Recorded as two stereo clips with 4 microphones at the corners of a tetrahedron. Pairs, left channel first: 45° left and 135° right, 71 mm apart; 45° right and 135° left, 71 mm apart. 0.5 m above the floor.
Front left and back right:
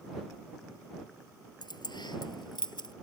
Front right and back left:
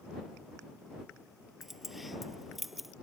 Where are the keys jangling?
45° left.